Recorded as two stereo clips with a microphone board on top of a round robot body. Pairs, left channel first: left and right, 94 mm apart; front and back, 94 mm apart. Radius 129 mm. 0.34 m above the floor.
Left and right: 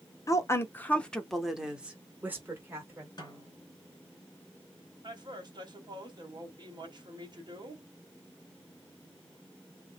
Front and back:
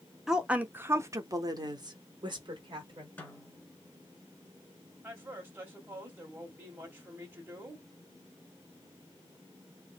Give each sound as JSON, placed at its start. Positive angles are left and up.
{"t": 0.3, "sound": "a woman speaking", "azimuth_deg": 100, "distance_m": 0.9}
{"t": 3.2, "sound": "a snare drum", "azimuth_deg": 65, "distance_m": 2.0}
{"t": 5.0, "sound": "a woman speaking", "azimuth_deg": -115, "distance_m": 1.9}